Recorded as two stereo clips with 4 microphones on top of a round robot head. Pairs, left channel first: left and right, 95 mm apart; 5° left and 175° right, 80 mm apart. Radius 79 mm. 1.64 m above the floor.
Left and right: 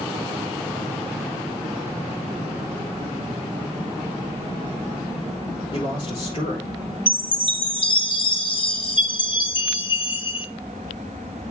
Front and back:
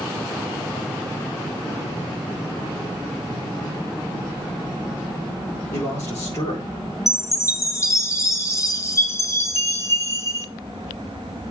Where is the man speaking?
60° left, 5.5 m.